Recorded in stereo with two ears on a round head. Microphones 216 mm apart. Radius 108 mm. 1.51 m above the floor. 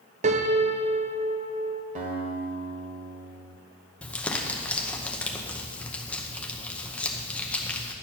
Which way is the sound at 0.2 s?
30° right (ahead or behind).